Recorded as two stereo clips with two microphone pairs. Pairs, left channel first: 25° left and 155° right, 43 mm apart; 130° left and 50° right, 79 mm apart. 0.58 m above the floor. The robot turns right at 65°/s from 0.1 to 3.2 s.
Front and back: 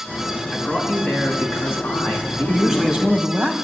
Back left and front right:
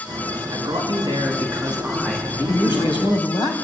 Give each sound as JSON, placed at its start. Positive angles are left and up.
{"t": 0.5, "sound": "a man speaking", "azimuth_deg": -50, "distance_m": 5.5}
{"t": 2.5, "sound": "a man speaking", "azimuth_deg": 105, "distance_m": 3.5}